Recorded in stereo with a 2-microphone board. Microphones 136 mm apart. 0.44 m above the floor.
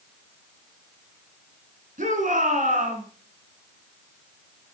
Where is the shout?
75° right (ahead or behind), 4.5 m.